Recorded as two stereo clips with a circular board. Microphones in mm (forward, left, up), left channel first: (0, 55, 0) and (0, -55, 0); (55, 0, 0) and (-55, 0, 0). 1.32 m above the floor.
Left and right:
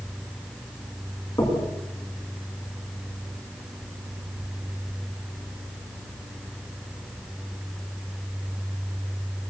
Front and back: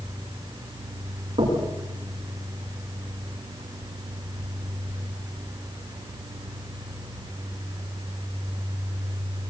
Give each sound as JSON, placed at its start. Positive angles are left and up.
{"t": 1.4, "sound": "knocking", "azimuth_deg": 145, "distance_m": 8.5}